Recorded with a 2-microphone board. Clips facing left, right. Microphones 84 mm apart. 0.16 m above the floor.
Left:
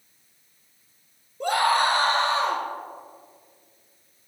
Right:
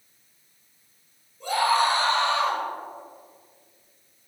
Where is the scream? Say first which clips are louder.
Left 1 dB; 60° left (ahead or behind), 2 m; by 2.6 s 30° left (ahead or behind), 2.5 m.